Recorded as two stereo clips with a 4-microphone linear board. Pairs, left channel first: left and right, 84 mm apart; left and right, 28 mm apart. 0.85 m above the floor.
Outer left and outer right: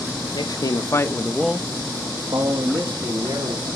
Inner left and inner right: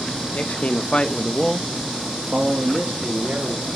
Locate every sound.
0.3 s a man speaking: 60° left (ahead or behind), 1.5 m; by 3.7 s 75° right (ahead or behind), 3 m